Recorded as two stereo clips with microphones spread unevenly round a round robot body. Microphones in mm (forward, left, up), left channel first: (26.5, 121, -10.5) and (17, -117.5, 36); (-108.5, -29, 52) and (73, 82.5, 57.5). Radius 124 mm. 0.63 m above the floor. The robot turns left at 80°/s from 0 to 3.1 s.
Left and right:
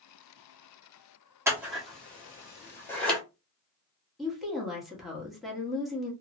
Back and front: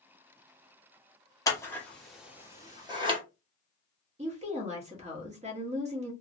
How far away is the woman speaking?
About 1.1 m.